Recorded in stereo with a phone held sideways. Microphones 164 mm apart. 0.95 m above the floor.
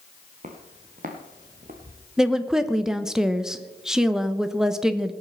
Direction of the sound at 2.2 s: 5° right (ahead or behind).